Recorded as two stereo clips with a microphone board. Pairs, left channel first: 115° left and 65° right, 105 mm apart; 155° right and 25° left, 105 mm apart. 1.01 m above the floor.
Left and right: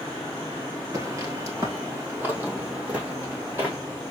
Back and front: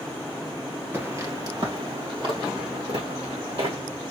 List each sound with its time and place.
0.9 s footsteps: 35° right, 1.2 m; by 3.8 s 10° left, 3.5 m